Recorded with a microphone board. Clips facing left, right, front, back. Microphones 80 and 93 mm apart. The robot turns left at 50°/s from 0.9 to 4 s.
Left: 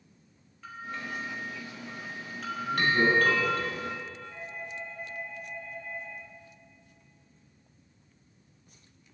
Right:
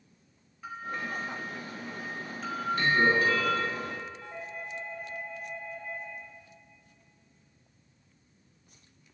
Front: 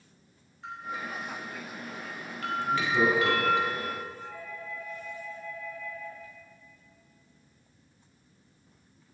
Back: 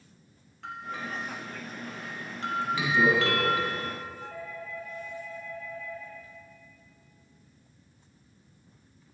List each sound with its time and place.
0.6 s a bell: 165° right, 2.5 m; by 3.6 s 60° left, 2.5 m
2.6 s laughter: 40° left, 6.5 m; by 4.1 s 30° right, 6.5 m
4.2 s a doorbell: 125° right, 6 m